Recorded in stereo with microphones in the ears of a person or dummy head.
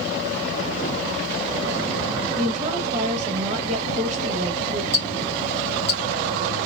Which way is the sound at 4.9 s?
35° left (ahead or behind).